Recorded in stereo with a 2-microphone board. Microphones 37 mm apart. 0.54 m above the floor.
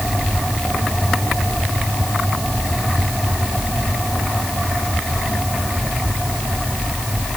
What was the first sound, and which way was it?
Only background noise.